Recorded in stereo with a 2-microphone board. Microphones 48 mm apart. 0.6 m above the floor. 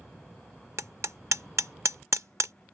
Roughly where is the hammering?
Right.